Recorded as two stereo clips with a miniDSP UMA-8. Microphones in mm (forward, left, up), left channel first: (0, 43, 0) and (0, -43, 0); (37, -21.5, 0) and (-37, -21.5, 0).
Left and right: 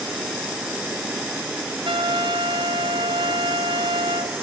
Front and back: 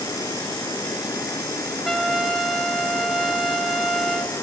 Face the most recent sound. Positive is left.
turn(degrees=-85)